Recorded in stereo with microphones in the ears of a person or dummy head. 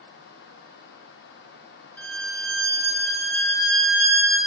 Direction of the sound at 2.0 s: 10° left (ahead or behind).